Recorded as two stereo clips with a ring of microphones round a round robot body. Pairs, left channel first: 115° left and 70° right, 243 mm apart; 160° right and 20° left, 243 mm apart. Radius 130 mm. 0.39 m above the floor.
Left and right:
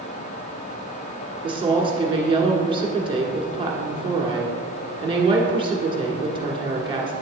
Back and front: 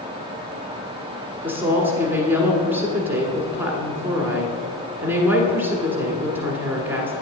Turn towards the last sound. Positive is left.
turn(degrees=-45)